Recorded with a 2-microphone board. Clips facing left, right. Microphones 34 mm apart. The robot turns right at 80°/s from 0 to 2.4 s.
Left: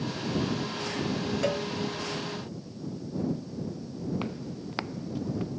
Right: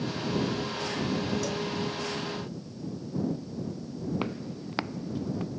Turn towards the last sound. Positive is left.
turn(degrees=0)  # may be behind; listen again after turning